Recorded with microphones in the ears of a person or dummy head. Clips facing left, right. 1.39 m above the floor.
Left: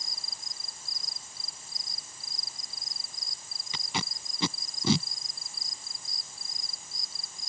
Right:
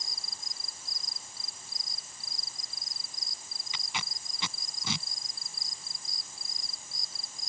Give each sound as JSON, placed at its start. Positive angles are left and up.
{"t": 3.7, "sound": "tape being pulled", "side_deg": 40}